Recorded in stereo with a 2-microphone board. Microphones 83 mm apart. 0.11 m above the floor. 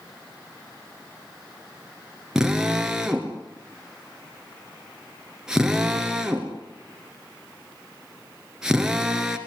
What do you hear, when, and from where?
2.4 s a drill: 5° right (ahead or behind), 2.0 m